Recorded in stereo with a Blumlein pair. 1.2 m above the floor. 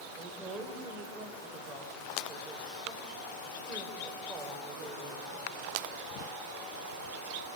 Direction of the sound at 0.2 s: 15° right.